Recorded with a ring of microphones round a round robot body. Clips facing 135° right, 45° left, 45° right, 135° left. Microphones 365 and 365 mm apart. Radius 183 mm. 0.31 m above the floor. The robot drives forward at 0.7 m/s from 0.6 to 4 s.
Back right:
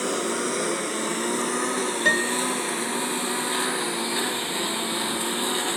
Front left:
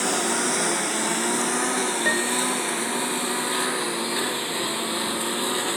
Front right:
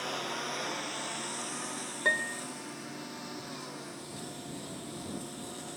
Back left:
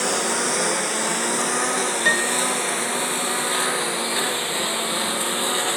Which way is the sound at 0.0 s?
120° left.